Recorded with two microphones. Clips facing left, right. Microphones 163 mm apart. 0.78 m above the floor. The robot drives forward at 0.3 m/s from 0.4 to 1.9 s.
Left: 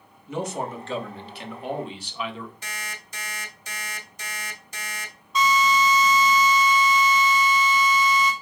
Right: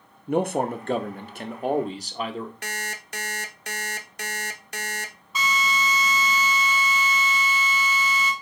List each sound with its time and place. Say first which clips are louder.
0.3 s a man speaking: right 6 dB; 55° right (ahead or behind), 0.6 m; by 2.5 s 40° right (ahead or behind), 0.7 m
2.6 s an alarm clock: right 4 dB; 65° right (ahead or behind), 0.5 m
5.3 s a drill: left 6 dB; 5° right (ahead or behind), 1.5 m